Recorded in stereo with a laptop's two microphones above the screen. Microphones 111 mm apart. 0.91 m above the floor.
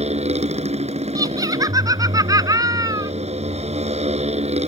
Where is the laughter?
30° right (ahead or behind).